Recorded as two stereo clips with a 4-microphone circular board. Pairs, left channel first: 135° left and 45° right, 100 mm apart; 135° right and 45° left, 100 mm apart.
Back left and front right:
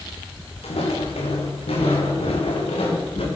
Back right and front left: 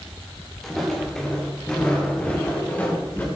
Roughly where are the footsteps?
Behind left.